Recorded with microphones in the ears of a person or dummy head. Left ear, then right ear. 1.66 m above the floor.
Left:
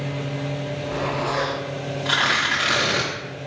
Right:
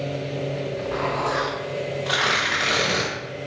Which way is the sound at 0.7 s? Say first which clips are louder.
Even; 30° right (ahead or behind).